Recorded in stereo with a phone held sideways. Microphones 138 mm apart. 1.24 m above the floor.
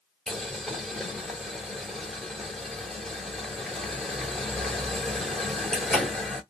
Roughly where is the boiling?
Centre.